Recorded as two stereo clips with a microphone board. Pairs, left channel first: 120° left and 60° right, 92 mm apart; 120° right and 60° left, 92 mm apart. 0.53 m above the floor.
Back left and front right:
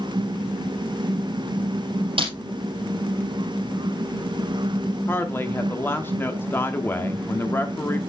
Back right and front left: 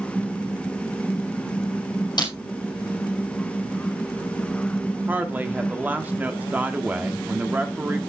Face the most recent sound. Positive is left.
turn(degrees=100)